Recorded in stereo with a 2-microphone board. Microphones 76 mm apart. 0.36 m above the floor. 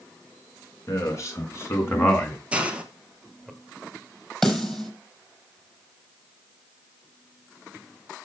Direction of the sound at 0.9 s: 45° left (ahead or behind).